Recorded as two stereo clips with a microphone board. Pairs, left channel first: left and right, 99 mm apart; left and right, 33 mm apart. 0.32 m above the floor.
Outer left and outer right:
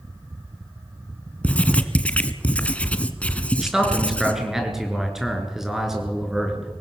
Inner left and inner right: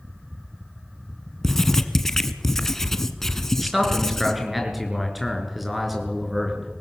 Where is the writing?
15° left (ahead or behind), 1.4 m.